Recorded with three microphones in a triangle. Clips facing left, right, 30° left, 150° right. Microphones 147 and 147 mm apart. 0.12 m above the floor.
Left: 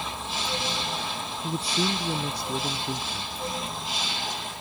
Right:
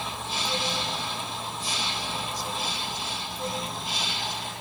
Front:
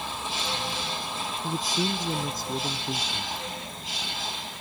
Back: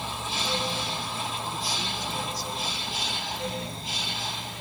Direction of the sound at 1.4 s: 75° left.